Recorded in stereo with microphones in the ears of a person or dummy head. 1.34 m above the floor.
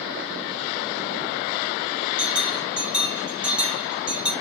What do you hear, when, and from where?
2.2 s a bell: 5° right (ahead or behind), 2.0 m